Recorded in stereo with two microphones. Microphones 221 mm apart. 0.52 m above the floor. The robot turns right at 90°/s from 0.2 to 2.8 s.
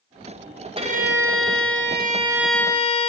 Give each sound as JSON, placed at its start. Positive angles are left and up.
{"t": 0.8, "sound": "a violin", "azimuth_deg": -155, "distance_m": 1.7}